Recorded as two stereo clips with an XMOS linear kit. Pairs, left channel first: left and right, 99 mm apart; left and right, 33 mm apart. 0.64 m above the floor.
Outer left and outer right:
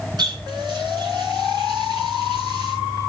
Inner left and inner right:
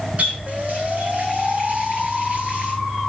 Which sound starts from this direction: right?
A running tap, at 0.2 s.